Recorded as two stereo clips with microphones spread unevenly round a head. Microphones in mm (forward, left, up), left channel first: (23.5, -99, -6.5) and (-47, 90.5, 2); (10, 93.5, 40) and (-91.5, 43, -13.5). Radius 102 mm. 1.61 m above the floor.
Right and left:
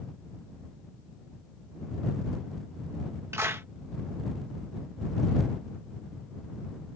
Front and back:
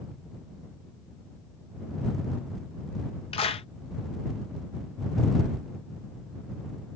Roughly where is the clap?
Ahead left.